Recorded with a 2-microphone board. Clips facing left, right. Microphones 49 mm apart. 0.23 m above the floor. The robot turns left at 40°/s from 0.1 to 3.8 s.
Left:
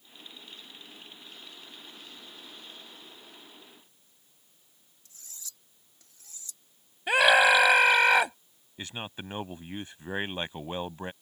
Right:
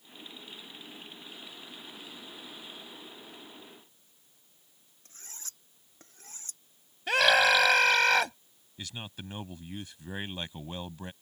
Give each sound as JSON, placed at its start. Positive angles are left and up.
{"t": 5.0, "sound": "cutlery clinking", "side_deg": -45}
{"t": 7.1, "sound": "a scream", "side_deg": 15}
{"t": 8.8, "sound": "a man speaking", "side_deg": 30}